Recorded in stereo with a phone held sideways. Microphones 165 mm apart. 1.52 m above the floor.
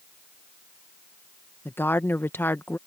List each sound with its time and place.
1.6 s a woman speaking: 15° left (ahead or behind)